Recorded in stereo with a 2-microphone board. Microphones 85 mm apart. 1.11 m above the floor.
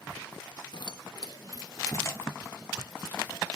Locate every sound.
0.7 s keys jangling: 60° left (ahead or behind), 0.5 m; by 3.6 s 20° left (ahead or behind), 1.6 m